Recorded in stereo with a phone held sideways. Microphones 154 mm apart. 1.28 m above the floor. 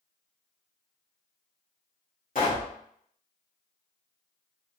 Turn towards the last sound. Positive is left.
turn(degrees=75)  # may be behind; listen again after turning